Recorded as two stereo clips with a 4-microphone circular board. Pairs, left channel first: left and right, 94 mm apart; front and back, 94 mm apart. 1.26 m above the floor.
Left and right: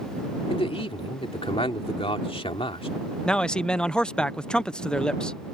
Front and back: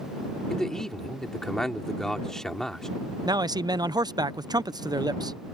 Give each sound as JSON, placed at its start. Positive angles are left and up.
{"t": 0.5, "sound": "a man speaking", "azimuth_deg": 85}
{"t": 3.2, "sound": "a man speaking", "azimuth_deg": 170}